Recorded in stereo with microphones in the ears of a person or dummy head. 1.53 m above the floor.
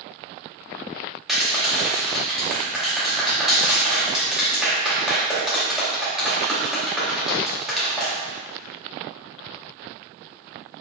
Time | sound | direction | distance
1.3 | a clap | 5° right (ahead or behind) | 2.5 m